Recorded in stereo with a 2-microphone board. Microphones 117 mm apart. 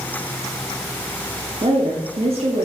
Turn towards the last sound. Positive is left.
turn(degrees=-55)  # may be behind; listen again after turning